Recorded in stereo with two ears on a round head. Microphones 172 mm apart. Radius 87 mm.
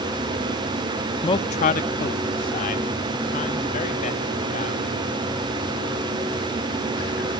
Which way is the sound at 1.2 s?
20° left (ahead or behind).